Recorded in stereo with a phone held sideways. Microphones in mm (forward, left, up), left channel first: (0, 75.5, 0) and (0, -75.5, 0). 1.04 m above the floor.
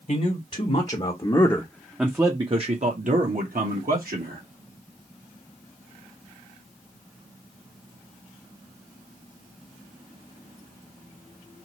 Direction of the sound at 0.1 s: 55° left (ahead or behind).